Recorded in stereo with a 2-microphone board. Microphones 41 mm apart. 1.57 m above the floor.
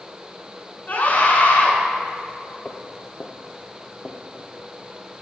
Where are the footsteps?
25° left (ahead or behind), 1.8 m; by 4.5 s 15° left (ahead or behind), 2.5 m.